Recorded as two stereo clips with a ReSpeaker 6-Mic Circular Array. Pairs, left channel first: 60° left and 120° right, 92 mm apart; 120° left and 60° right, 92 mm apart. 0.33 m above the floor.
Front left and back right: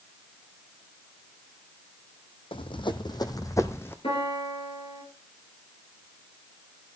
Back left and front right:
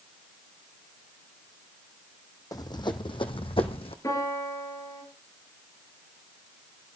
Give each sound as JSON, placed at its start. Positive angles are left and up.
{"t": 2.5, "sound": "running footsteps", "azimuth_deg": 75, "distance_m": 1.1}
{"t": 4.0, "sound": "a piano", "azimuth_deg": 65, "distance_m": 4.0}